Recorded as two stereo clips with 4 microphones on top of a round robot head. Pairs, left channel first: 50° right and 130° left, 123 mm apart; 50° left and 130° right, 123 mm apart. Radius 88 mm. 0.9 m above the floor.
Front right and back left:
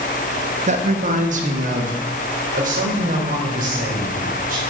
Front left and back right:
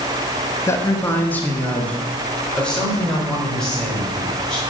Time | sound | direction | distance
0.7 | a man speaking | 115° left | 1.3 m